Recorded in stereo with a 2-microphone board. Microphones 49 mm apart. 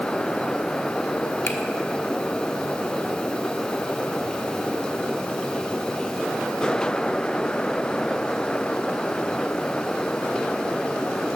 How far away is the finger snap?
About 1.2 m.